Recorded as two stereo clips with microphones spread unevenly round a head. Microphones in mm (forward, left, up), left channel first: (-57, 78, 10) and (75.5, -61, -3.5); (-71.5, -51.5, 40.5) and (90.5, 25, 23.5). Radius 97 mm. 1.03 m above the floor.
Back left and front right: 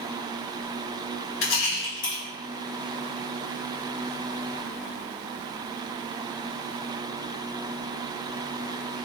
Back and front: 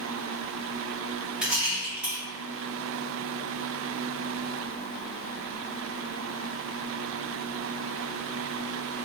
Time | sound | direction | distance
1.4 | a rattle | 110° left | 1.3 m